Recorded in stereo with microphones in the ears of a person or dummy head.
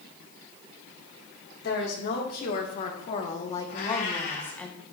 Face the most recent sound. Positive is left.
turn(degrees=60)  # may be behind; listen again after turning